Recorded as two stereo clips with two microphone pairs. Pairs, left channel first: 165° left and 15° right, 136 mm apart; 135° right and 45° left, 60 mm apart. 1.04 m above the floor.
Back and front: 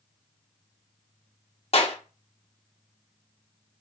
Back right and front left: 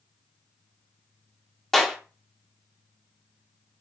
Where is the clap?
140° left, 0.7 m.